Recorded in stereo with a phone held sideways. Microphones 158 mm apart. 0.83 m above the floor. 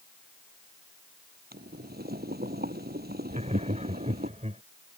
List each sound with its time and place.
1.5 s boiling: 75° right (ahead or behind)
3.3 s laughter: 45° right (ahead or behind)